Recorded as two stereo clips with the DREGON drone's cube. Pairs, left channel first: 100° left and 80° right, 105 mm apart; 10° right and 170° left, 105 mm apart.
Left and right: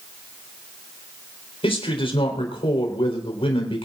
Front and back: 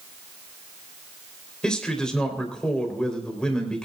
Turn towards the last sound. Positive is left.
turn(degrees=70)